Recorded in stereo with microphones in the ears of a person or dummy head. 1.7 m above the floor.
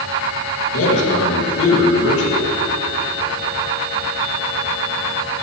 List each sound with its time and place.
0.7 s a man speaking: 70° left (ahead or behind), 2.5 m